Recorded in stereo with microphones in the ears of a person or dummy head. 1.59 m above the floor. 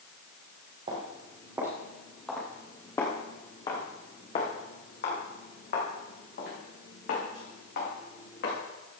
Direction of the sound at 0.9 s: 30° right (ahead or behind).